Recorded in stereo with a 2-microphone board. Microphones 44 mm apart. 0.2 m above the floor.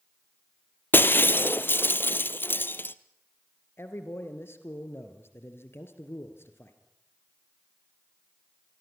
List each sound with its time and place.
0.9 s breaking glass: 55° left (ahead or behind), 0.8 m
3.8 s a man speaking: 65° left (ahead or behind), 3.5 m